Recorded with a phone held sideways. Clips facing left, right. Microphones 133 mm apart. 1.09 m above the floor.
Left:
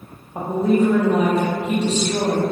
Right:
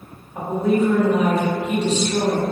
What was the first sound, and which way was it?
A woman speaking, 35° left (ahead or behind).